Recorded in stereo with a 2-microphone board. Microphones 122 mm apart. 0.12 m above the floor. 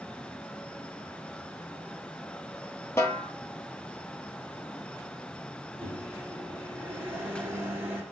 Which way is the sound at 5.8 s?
15° right (ahead or behind).